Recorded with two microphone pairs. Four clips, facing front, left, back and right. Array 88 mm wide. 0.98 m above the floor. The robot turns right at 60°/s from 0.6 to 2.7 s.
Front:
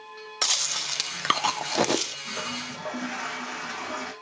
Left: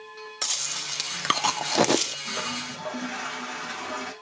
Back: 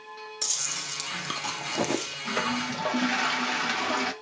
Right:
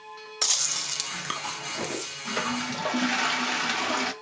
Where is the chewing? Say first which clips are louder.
Right 4 dB, front 5 dB; 10° right, 0.8 m; by 2.1 s 85° left, 0.8 m.